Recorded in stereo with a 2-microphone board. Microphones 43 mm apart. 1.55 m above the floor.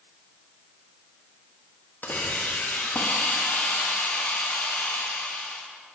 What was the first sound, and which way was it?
A hiss, 45° left (ahead or behind).